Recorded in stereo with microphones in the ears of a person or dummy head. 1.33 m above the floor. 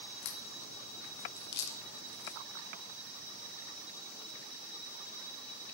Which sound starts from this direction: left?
A crack, at 0.2 s.